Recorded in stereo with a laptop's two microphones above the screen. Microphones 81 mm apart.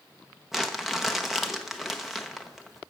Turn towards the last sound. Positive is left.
turn(degrees=0)  # may be behind; listen again after turning